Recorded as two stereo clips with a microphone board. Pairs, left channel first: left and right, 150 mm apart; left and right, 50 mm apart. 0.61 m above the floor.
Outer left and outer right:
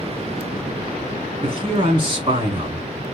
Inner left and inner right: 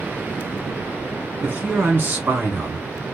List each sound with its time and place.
1.4 s a man speaking: 35° right (ahead or behind), 1.5 m